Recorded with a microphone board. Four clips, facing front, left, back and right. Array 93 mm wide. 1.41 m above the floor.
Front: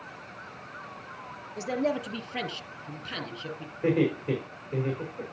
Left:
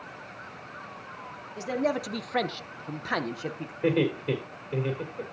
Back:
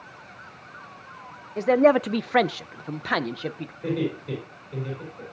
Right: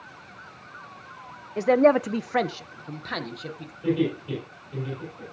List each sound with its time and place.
1.6 s a man speaking: 130° right, 0.7 m; by 3.7 s 155° left, 1.1 m
3.8 s laughter: 60° left, 4.5 m